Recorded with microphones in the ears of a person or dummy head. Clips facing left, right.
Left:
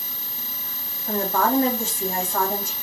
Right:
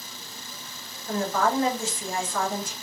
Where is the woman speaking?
45° left (ahead or behind), 2 m.